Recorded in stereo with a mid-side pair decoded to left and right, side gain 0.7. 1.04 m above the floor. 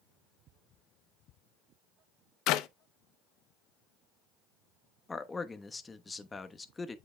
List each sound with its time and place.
2.5 s a clap: 60° left, 0.7 m
5.1 s a man speaking: 15° left, 1.0 m